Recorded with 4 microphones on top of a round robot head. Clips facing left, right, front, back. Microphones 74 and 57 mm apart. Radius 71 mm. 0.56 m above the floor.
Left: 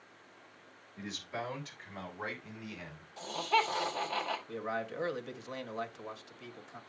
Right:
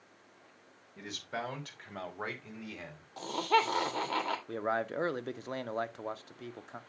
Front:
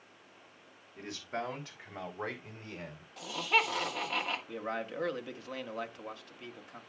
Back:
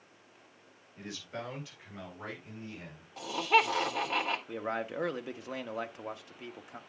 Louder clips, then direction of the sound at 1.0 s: Right 1 dB, front 3 dB; 60° right.